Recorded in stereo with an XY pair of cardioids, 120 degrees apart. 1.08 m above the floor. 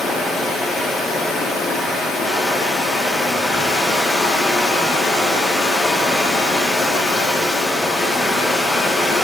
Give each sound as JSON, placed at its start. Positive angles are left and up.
{"t": 0.0, "sound": "running water", "azimuth_deg": 45, "distance_m": 2.5}